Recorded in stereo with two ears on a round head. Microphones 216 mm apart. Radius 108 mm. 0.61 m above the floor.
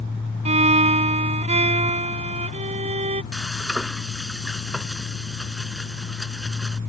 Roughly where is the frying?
Centre.